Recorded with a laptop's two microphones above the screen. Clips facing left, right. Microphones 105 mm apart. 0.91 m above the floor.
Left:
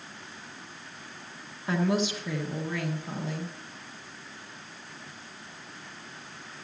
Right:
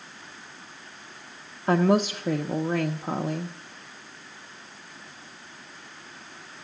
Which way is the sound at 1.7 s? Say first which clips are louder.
Right 6 dB; 45° right (ahead or behind).